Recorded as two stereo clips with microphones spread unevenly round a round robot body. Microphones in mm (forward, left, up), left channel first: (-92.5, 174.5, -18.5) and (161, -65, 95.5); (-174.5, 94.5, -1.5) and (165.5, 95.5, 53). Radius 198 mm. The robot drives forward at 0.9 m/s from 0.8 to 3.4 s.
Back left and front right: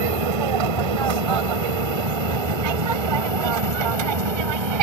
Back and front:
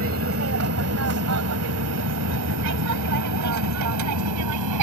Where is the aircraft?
60° right; by 4.8 s 45° right.